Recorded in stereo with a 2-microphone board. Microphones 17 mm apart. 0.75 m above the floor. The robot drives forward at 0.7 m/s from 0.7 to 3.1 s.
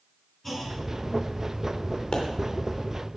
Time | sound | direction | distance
0.4 | a clunk | 5° left (ahead or behind) | 5.5 m
2.1 | a pop | 70° left (ahead or behind) | 3 m